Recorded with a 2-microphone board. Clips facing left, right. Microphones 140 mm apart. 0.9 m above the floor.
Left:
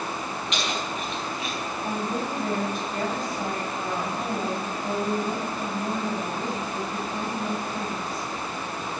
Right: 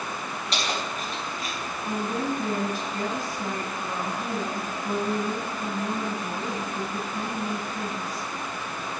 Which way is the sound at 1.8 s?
55° left (ahead or behind).